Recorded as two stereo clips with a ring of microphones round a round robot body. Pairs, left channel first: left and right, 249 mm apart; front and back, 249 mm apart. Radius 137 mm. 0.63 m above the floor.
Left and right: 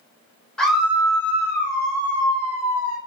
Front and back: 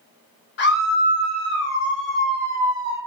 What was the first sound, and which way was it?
A scream, 5° left.